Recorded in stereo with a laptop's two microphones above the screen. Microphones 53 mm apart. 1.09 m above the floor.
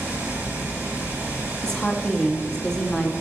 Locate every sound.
0.0 s running water: 30° right (ahead or behind), 3.5 m
1.6 s a woman speaking: 10° left (ahead or behind), 0.7 m